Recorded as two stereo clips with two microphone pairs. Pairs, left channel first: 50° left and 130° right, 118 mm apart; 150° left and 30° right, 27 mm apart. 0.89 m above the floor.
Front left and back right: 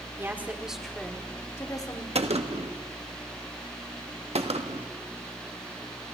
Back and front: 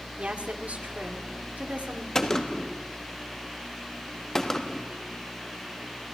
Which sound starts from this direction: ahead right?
A woman speaking, at 0.2 s.